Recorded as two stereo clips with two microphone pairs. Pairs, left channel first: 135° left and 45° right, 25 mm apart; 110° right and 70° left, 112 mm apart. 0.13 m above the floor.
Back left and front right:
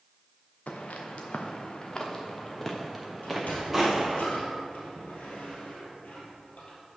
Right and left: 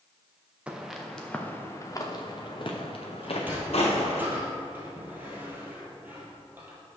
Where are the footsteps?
155° left, 1.3 m; by 4.2 s 125° right, 2.5 m.